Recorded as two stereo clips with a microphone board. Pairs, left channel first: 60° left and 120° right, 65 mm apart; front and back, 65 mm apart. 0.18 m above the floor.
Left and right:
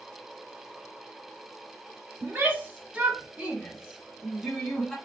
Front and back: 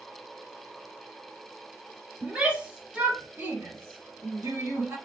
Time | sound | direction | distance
2.2 | a shout | 110° right | 1.2 m